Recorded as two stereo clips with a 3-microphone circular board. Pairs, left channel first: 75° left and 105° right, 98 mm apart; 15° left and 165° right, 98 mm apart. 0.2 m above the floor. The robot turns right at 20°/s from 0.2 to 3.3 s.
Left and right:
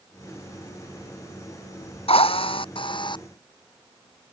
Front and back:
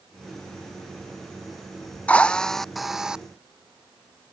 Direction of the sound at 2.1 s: 90° left.